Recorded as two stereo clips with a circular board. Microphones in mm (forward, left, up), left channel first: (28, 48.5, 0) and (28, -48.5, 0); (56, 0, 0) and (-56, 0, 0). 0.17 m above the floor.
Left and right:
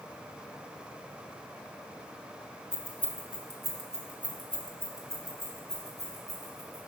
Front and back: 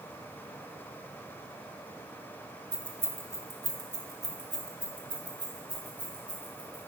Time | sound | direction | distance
2.7 | keys jangling | 120° left | 1.0 m